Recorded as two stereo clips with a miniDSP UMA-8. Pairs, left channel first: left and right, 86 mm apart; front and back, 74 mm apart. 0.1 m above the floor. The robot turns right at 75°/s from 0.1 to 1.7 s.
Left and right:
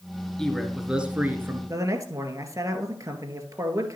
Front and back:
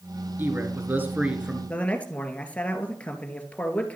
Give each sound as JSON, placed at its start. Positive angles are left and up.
{"t": 0.4, "sound": "a man speaking", "azimuth_deg": 165, "distance_m": 1.4}
{"t": 1.7, "sound": "a man speaking", "azimuth_deg": -65, "distance_m": 1.8}